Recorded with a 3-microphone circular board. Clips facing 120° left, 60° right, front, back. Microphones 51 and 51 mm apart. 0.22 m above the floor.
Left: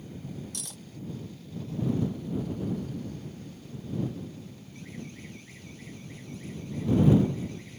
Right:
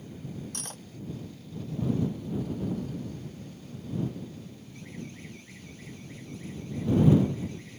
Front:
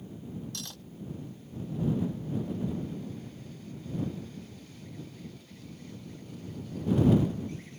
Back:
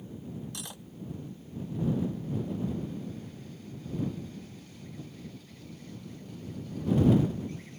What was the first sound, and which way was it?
Cutlery clinking, 105° right.